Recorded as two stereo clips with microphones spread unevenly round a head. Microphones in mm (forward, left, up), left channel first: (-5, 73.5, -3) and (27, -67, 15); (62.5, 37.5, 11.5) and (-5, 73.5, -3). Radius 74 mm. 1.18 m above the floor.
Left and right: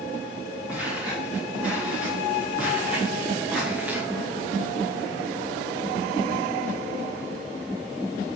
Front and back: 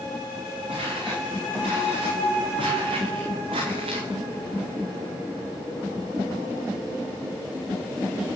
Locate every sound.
0.7 s footsteps: 160° right, 8 m